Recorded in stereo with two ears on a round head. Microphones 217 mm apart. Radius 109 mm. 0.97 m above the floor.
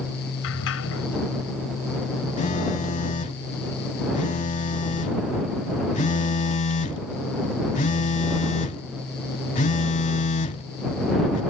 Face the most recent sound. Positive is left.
turn(degrees=30)  # may be behind; listen again after turning